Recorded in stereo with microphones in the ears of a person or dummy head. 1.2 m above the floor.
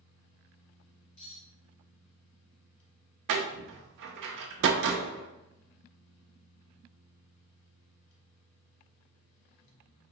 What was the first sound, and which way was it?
A fan, 50° left (ahead or behind).